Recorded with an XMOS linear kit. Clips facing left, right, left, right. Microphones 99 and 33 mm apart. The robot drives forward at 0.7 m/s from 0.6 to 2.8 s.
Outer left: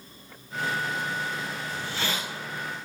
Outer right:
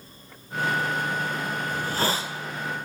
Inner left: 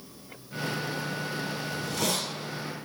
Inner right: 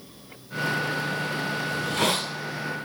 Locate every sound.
1.7 s a hiss: 55° right (ahead or behind), 0.6 m; by 2.3 s 30° right (ahead or behind), 1.0 m